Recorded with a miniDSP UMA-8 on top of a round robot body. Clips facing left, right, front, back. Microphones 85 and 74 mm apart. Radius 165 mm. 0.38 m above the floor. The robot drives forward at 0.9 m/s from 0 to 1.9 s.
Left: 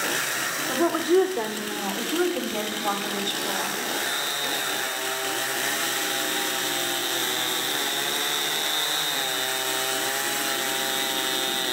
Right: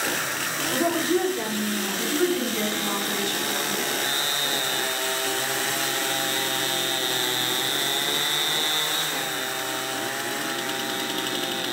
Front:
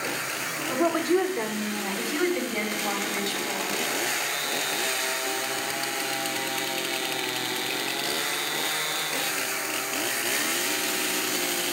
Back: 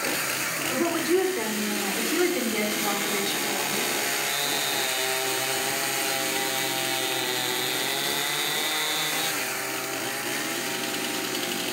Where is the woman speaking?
75° left, 2 m; by 3.8 s 110° left, 2 m.